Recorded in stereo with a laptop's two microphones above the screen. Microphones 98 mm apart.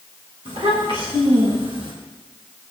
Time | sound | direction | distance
0.5 | a child speaking | 85° right | 5 m